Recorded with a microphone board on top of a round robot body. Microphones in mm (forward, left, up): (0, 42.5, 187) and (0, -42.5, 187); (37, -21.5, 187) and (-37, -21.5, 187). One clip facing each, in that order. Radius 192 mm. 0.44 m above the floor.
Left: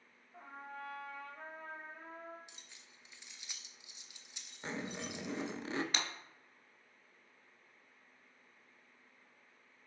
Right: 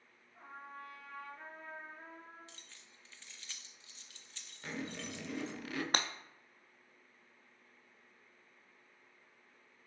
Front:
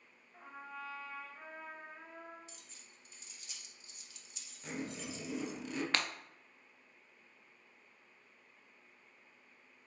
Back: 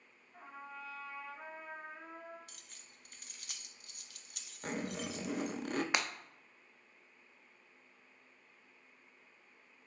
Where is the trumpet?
95° left, 0.9 m.